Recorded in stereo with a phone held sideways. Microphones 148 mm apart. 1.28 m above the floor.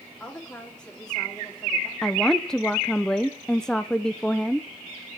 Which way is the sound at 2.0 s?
5° left (ahead or behind).